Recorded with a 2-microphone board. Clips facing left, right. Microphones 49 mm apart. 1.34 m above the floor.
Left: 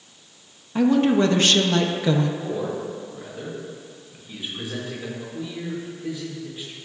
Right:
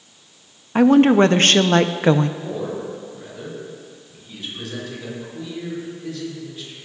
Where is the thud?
I don't hear a thud.